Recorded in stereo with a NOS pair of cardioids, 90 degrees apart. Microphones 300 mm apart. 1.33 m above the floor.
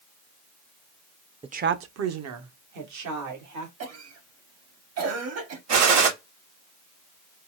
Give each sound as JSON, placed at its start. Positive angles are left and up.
{"t": 1.4, "sound": "a woman speaking", "azimuth_deg": -20, "distance_m": 0.5}
{"t": 3.8, "sound": "a cough", "azimuth_deg": -55, "distance_m": 2.0}
{"t": 5.7, "sound": "a gunshot", "azimuth_deg": -60, "distance_m": 2.0}